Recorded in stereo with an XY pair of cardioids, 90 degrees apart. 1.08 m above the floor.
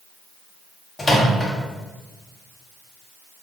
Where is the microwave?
30° left, 0.7 m.